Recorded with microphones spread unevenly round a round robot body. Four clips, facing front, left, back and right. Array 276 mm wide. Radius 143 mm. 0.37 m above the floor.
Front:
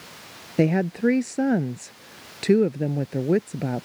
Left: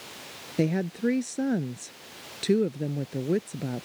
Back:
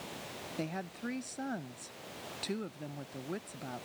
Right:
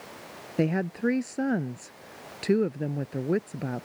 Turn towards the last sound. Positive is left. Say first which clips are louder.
# even, front 19 dB
turn(degrees=0)